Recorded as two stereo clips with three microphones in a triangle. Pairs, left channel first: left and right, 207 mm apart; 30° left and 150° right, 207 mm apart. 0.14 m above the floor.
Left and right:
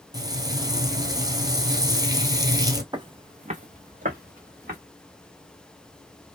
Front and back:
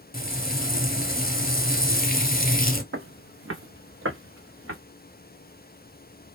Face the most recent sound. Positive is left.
turn(degrees=-140)